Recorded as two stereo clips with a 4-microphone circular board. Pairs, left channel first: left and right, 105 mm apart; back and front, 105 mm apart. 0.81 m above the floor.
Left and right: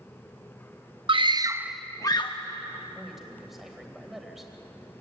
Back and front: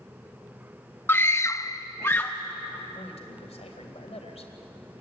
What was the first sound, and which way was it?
A scream, 115° right.